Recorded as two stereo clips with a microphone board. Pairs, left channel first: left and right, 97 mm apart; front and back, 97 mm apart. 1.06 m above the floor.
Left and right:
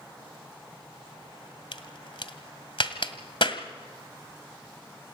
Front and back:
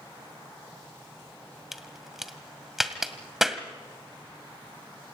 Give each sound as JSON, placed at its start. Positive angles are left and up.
{"t": 1.7, "sound": "a crack", "azimuth_deg": 95, "distance_m": 1.6}